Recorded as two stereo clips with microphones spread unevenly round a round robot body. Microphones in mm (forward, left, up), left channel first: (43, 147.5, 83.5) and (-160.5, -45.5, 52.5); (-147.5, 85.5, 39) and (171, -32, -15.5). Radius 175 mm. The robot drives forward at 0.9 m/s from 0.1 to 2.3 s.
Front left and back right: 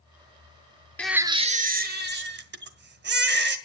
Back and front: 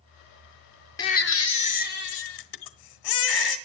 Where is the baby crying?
110° left, 0.5 m; by 3.6 s 170° left, 1.4 m.